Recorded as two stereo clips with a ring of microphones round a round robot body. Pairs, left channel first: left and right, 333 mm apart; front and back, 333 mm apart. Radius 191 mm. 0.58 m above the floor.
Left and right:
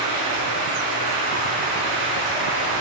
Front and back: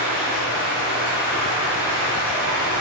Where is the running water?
125° right, 4.5 m.